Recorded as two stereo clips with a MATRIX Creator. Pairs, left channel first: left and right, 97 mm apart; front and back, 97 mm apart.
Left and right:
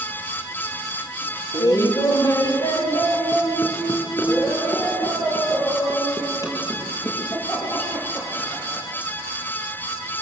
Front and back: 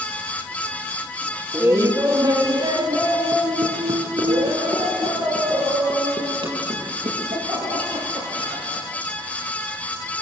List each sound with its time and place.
1.5 s laughter: 125° left, 1.2 m; by 8.8 s 150° left, 12 m